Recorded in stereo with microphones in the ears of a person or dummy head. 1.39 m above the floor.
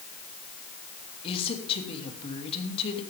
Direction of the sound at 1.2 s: 30° left (ahead or behind).